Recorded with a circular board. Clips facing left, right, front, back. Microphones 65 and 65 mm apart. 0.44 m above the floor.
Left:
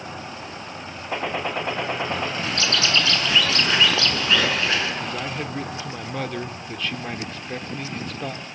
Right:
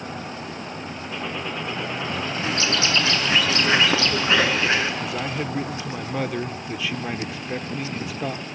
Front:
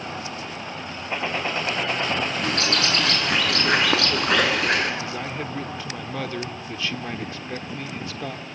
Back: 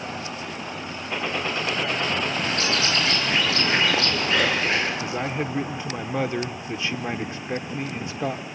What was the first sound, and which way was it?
A gunshot, 70° left.